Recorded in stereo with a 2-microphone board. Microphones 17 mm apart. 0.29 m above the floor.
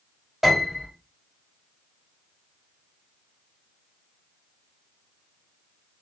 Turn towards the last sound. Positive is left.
turn(degrees=-5)  # may be behind; listen again after turning